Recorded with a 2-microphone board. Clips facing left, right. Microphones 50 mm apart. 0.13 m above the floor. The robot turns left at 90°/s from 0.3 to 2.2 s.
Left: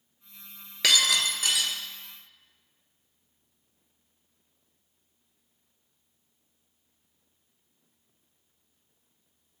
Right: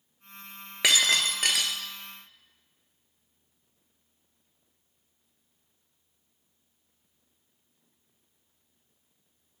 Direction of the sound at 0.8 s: 20° right.